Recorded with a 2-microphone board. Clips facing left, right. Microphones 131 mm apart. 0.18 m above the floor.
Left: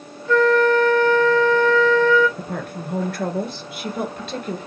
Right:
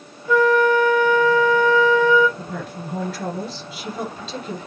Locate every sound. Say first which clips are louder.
0.3 s a flute: even; 10° right (ahead or behind), 1.5 m
2.4 s a woman speaking: left 2 dB; 55° left (ahead or behind), 2.5 m